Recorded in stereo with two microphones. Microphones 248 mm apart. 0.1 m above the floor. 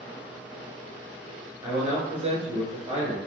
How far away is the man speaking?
About 1.2 m.